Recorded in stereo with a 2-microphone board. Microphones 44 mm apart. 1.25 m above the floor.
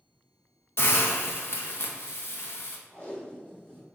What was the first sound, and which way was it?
A hiss, 60° left (ahead or behind).